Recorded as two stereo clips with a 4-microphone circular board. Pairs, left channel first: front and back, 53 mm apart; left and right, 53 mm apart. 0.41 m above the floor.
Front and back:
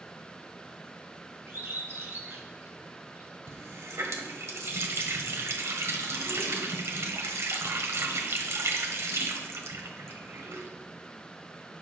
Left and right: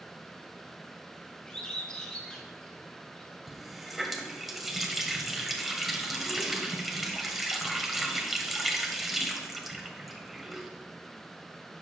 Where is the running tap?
175° right, 1.4 m.